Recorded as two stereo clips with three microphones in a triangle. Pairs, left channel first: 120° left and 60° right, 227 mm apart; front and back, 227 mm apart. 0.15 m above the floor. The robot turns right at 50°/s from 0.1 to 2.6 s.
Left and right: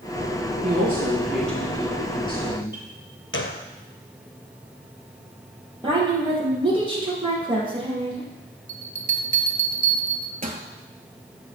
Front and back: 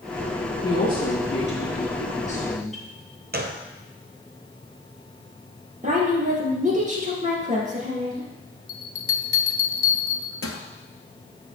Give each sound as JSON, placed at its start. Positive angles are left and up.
{"t": 0.6, "sound": "a woman speaking", "azimuth_deg": -10, "distance_m": 3.0}
{"t": 3.3, "sound": "a gunshot", "azimuth_deg": 140, "distance_m": 0.8}
{"t": 5.8, "sound": "a woman speaking", "azimuth_deg": -125, "distance_m": 3.0}
{"t": 8.7, "sound": "a bell", "azimuth_deg": -5, "distance_m": 0.9}